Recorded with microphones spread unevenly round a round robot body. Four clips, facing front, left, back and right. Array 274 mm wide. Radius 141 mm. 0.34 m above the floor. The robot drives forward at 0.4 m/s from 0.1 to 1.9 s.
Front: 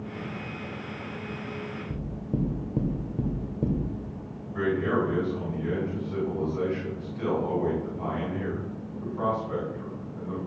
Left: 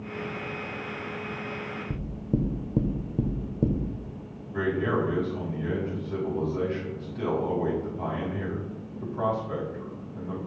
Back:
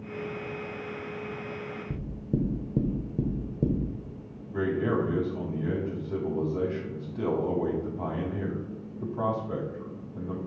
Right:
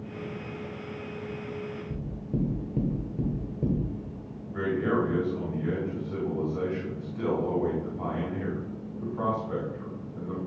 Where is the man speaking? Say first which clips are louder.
Even, front 1 dB; 170° left, 2.5 m.